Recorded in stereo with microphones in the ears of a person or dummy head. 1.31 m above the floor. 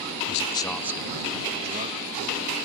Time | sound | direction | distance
0.3 | a man speaking | 55° left (ahead or behind) | ?